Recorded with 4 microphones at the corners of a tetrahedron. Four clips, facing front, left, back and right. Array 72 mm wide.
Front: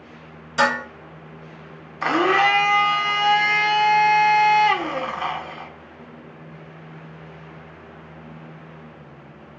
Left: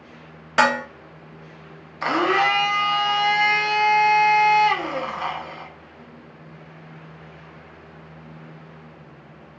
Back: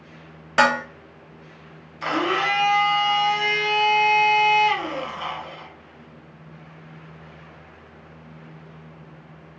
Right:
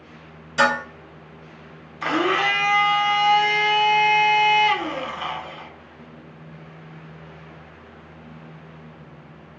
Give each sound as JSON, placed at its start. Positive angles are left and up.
{"t": 0.6, "sound": "dishes clattering", "azimuth_deg": 135, "distance_m": 0.8}
{"t": 2.0, "sound": "a blender", "azimuth_deg": 30, "distance_m": 0.6}